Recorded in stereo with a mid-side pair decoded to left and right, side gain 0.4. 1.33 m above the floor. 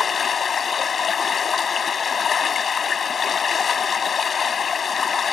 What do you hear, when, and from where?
0.0 s running water: 50° left